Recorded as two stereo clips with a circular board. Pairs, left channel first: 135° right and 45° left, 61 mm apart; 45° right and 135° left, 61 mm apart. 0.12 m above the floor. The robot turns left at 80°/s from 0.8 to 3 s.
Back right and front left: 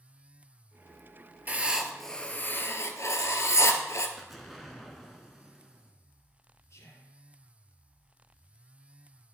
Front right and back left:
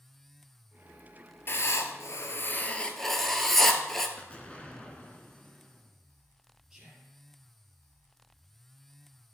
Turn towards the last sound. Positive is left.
turn(degrees=-145)